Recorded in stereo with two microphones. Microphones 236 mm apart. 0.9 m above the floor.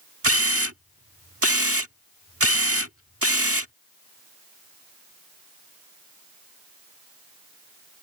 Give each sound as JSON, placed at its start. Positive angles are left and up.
{"t": 0.2, "sound": "a camera shutter", "side_deg": -75}